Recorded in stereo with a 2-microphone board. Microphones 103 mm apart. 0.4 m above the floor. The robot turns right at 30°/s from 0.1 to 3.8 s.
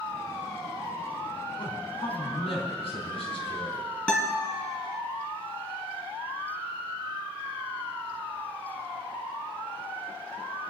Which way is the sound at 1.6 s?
55° left.